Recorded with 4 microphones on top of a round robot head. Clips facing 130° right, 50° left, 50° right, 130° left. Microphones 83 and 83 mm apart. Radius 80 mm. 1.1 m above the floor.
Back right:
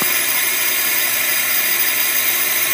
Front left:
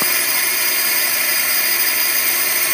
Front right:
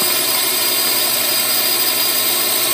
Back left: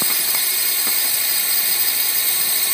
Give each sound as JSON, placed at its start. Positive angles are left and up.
{"t": 0.0, "sound": "a drone", "azimuth_deg": -40}